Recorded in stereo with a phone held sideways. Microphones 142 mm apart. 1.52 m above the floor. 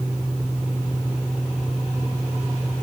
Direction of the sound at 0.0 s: Centre (ahead or behind).